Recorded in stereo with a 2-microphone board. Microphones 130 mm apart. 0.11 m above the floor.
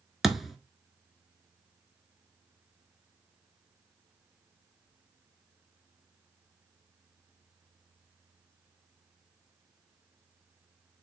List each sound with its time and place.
0.2 s a thud: centre (ahead or behind), 0.6 m